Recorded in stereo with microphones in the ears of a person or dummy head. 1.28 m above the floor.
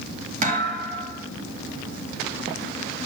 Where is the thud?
45° right (ahead or behind), 2.5 m.